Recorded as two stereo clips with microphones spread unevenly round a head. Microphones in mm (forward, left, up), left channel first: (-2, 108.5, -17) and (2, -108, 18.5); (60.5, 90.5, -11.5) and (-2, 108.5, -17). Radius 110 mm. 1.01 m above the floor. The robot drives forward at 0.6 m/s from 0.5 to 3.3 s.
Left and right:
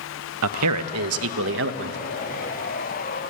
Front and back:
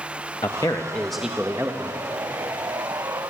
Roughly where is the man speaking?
Right.